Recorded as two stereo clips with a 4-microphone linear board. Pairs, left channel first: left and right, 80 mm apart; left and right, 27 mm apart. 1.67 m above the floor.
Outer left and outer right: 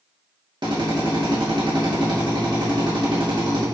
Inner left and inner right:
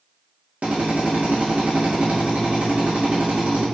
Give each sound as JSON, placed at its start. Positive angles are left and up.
{"t": 0.6, "sound": "a drill", "side_deg": -65, "distance_m": 2.5}